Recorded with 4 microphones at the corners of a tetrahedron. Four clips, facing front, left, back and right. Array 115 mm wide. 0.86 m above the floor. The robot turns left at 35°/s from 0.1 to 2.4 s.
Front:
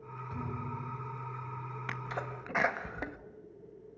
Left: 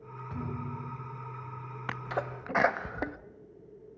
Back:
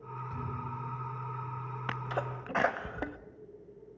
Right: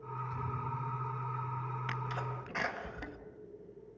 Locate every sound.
0.3 s a thud: 90° left, 4.5 m; by 1.2 s 55° left, 4.5 m
1.9 s a sneeze: 130° left, 0.9 m; by 3.2 s 110° left, 0.9 m